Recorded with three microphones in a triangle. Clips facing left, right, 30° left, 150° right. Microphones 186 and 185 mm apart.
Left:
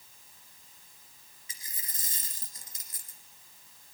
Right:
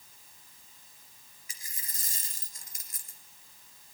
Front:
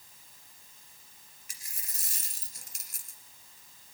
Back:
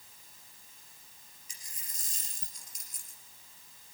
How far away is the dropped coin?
About 2.5 m.